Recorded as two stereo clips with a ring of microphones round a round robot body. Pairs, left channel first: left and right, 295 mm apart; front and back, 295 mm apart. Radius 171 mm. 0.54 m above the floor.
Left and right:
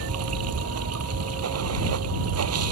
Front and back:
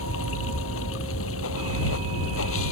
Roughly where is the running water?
Ahead right.